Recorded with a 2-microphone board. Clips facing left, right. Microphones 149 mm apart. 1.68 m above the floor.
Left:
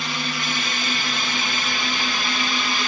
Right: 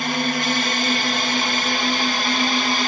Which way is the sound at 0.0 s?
55° right (ahead or behind).